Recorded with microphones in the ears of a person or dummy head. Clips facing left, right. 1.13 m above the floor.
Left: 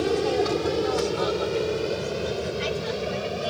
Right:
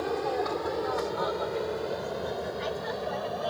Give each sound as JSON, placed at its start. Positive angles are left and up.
{"t": 0.0, "sound": "an aircraft", "side_deg": 40}